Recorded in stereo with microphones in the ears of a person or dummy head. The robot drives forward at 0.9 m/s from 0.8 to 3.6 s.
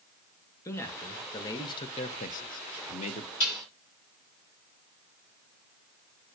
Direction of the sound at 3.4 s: 80° left.